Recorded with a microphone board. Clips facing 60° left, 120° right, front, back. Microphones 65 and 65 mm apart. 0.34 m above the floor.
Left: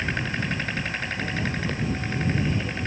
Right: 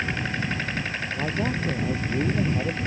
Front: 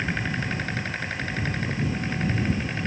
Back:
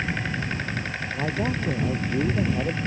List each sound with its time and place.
1.1 s a man speaking: 170° right